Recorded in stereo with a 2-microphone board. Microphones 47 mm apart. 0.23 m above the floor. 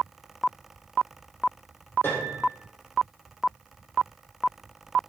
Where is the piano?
45° left (ahead or behind), 4.5 m.